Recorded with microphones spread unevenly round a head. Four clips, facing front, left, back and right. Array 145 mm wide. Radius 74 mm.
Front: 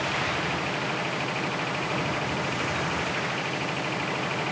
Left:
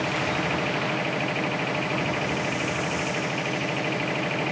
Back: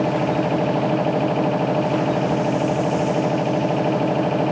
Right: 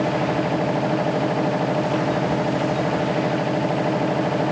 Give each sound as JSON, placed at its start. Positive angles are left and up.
{"t": 0.0, "sound": "a machine running", "azimuth_deg": -155}